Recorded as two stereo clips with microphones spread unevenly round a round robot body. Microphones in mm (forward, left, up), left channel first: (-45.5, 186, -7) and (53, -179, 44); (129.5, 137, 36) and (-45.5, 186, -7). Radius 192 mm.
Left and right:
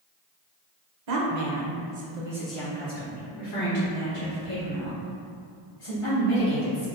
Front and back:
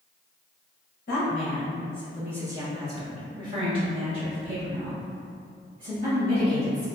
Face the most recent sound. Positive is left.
turn(degrees=155)